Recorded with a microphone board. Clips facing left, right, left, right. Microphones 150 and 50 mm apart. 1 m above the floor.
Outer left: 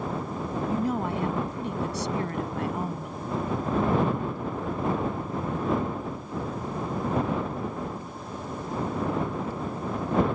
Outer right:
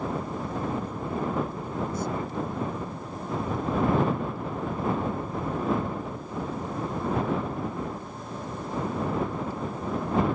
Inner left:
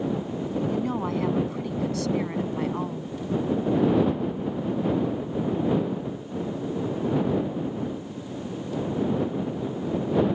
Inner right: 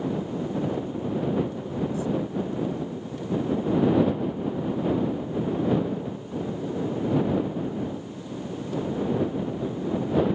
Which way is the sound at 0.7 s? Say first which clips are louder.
Outer left 4 dB, inner left 2 dB; 85° left.